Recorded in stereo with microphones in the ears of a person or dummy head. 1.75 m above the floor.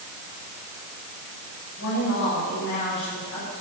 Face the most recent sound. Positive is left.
turn(degrees=60)  # may be behind; listen again after turning